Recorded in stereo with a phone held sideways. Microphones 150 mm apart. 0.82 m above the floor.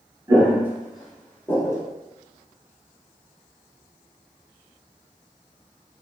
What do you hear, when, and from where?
0.3 s footsteps: 20° right (ahead or behind), 0.9 m; by 1.8 s 20° left (ahead or behind), 0.9 m